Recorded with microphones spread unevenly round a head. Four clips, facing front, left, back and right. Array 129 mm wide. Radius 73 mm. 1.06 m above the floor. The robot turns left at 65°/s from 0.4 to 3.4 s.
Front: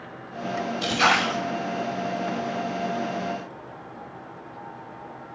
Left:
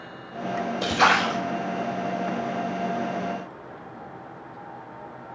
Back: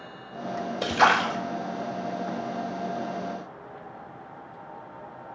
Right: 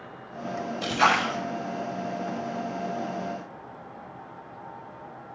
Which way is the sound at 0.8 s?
155° left.